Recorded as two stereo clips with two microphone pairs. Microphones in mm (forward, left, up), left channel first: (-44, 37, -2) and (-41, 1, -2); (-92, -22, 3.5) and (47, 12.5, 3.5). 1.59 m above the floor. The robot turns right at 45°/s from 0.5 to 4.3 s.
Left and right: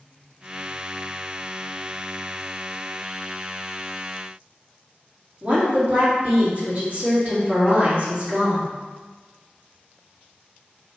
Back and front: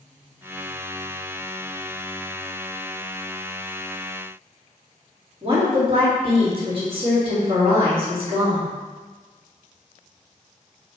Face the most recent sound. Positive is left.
turn(degrees=-35)